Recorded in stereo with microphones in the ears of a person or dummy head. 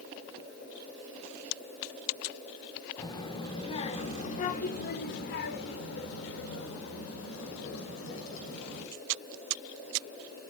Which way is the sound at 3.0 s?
20° left (ahead or behind).